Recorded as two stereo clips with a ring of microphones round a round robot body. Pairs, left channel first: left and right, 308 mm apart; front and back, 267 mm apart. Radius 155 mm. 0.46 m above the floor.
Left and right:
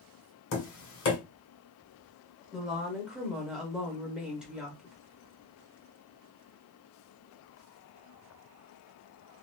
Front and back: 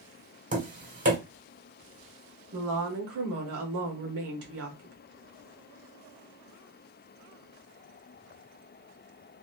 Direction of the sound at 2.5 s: 175° right.